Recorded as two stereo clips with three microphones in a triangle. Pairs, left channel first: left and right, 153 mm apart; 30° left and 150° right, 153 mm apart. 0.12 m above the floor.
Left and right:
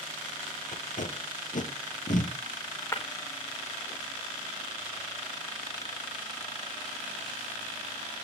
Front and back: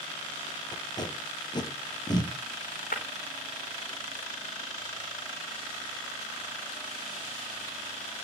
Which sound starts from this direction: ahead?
Breaking glass, at 2.9 s.